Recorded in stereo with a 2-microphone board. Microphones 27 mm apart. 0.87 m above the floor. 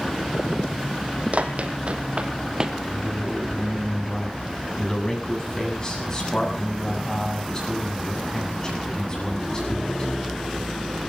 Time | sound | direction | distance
1.3 | running footsteps | 55° right (ahead or behind) | 2.5 m
2.8 | a man speaking | 30° left (ahead or behind) | 8 m